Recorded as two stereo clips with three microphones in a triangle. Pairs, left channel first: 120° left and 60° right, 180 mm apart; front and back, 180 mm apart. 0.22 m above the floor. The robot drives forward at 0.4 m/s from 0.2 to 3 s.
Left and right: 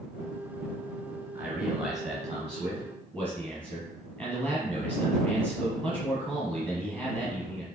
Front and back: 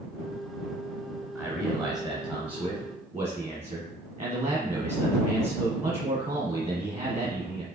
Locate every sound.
1.4 s a man speaking: 120° right, 1.0 m; by 7.6 s 160° right, 1.3 m